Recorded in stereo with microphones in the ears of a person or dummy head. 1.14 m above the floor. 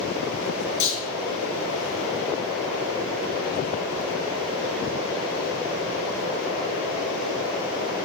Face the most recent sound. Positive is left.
turn(degrees=60)  # may be behind; listen again after turning